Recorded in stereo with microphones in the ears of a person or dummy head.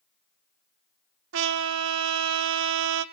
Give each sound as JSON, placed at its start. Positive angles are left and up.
{"t": 1.3, "sound": "a trumpet", "side_deg": -70, "distance_m": 0.8}